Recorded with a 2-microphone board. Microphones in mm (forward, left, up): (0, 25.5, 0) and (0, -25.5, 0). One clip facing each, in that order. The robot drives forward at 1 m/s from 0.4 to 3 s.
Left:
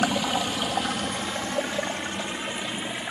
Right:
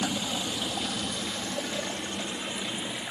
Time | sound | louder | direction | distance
0.0 | running water | left 6 dB | 65° left (ahead or behind) | 1.3 m